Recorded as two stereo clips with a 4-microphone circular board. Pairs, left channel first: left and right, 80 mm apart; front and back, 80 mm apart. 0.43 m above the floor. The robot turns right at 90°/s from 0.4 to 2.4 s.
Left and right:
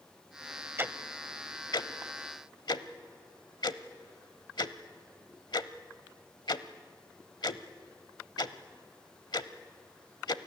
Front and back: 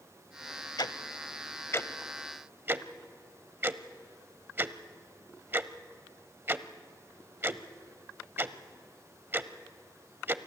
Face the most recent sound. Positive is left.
turn(degrees=115)